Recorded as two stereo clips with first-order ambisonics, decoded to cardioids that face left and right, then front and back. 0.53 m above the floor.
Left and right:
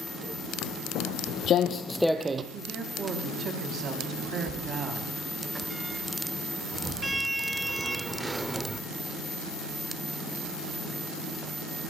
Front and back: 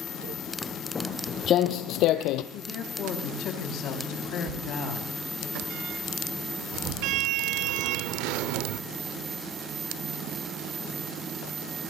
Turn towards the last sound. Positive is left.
turn(degrees=-175)